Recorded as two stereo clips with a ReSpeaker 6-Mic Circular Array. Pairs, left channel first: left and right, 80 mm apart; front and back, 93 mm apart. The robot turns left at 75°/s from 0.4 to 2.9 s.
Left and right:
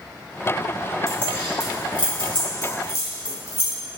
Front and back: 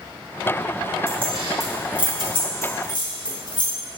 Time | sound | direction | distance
1.1 | keys jangling | 175° left | 4 m